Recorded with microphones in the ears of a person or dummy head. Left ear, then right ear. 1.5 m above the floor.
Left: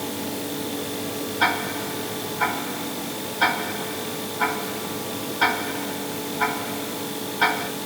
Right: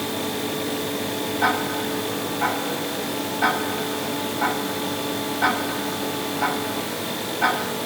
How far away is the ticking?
About 4 m.